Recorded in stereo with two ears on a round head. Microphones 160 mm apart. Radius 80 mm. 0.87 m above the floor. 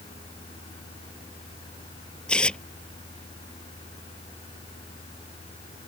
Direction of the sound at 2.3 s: 5° left (ahead or behind).